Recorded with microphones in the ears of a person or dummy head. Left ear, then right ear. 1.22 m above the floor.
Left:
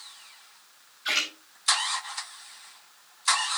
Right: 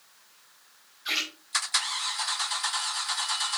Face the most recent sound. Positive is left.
turn(degrees=20)  # may be behind; listen again after turning